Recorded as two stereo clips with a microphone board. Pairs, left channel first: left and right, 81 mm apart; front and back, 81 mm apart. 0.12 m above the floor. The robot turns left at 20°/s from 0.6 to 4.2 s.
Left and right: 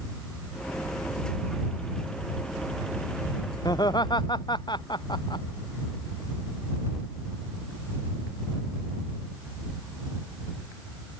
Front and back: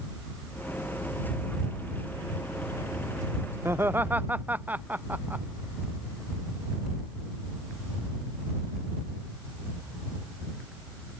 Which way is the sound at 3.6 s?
120° left.